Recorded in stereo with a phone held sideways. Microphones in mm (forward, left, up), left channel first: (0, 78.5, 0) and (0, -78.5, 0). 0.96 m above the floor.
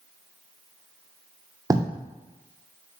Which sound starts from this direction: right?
Writing, at 1.7 s.